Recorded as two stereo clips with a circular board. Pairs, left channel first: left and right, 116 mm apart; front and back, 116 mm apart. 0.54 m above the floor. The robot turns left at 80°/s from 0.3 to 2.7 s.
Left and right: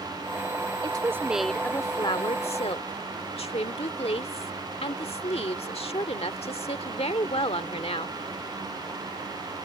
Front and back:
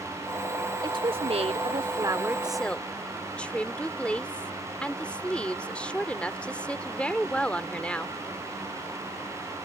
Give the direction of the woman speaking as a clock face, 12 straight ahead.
4 o'clock.